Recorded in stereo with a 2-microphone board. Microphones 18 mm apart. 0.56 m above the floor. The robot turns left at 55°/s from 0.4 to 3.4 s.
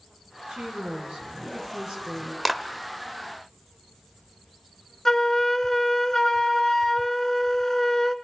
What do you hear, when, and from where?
0.5 s a woman speaking: 55° right, 5 m; by 2.4 s 160° right, 5 m
2.5 s a clap: 5° left (ahead or behind), 1.0 m; by 2.6 s centre (ahead or behind), 1.0 m
5.0 s a flute: 30° left (ahead or behind), 0.9 m